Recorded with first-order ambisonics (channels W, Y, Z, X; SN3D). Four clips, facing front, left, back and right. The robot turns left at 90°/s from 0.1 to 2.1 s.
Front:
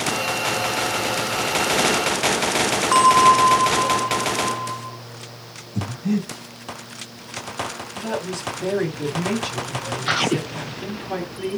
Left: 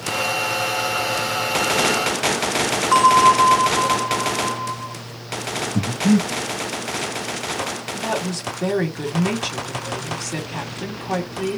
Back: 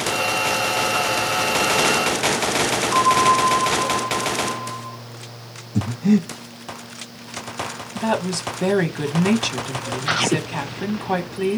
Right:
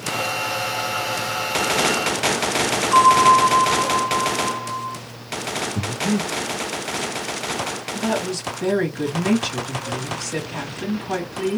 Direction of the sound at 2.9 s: 40° left.